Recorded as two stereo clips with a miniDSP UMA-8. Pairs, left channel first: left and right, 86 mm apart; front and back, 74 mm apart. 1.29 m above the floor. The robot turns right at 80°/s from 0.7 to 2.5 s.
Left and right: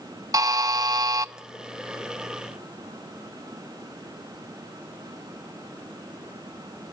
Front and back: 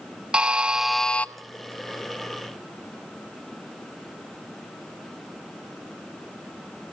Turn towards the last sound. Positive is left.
turn(degrees=35)